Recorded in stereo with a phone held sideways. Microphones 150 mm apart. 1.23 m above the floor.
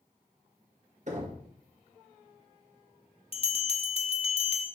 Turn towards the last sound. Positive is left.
turn(degrees=40)  # may be behind; listen again after turning